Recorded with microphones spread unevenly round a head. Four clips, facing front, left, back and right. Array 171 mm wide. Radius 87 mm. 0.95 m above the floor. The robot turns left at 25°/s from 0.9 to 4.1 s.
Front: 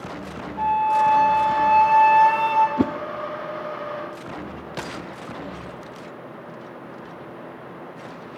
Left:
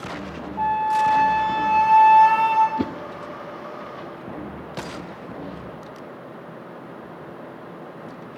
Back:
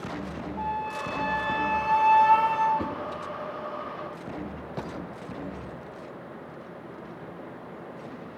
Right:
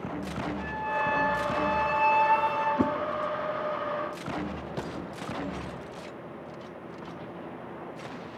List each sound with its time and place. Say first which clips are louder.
0.6 s a flute: left 13 dB, front 13 dB; 80° left, 4.5 m; by 2.7 s 35° left, 4.5 m
2.8 s a whoosh: even, front 9 dB; 5° left, 0.5 m; by 2.9 s straight ahead, 0.5 m